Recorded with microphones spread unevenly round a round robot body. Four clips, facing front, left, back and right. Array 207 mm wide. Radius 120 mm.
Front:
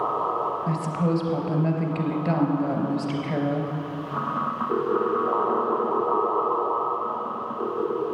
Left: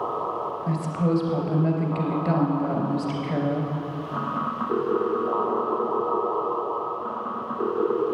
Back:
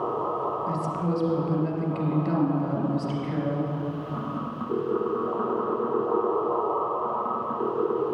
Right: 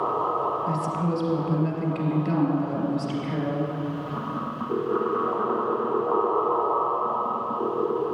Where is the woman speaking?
25° left, 3 m.